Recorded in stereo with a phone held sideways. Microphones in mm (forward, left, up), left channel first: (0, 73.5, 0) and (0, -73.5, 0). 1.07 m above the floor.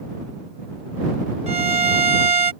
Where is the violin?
50° right (ahead or behind).